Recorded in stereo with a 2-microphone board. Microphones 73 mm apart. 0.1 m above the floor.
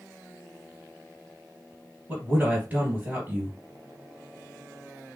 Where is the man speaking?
20° right (ahead or behind), 2 m.